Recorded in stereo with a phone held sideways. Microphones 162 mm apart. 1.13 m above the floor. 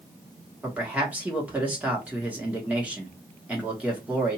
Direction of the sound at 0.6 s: 10° right (ahead or behind).